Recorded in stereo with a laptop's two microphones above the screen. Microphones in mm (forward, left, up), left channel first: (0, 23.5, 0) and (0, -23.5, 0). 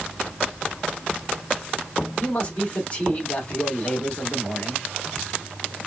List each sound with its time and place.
2.2 s a man speaking: 30° left (ahead or behind), 2 m